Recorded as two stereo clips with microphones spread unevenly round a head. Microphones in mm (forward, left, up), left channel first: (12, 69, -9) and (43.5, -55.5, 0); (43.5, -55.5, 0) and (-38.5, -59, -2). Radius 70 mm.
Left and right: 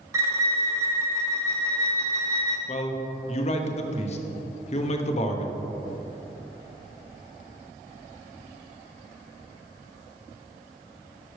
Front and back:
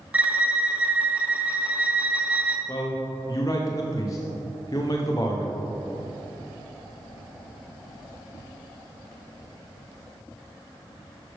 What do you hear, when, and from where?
0.1 s a violin: 115° right, 0.8 m
2.7 s a man speaking: 70° left, 0.9 m